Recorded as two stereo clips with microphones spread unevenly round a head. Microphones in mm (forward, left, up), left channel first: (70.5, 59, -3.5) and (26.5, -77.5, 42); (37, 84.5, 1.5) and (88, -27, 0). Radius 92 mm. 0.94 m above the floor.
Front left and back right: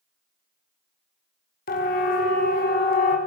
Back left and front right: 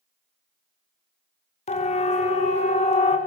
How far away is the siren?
About 3.5 m.